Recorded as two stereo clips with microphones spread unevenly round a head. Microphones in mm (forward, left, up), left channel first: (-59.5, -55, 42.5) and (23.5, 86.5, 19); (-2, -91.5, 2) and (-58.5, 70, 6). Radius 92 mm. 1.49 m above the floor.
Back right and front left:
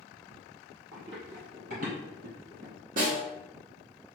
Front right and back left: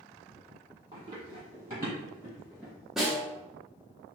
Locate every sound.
0.9 s running footsteps: 100° left, 1.6 m; by 2.7 s 25° left, 2 m
3.0 s a snare drum: 20° left, 0.9 m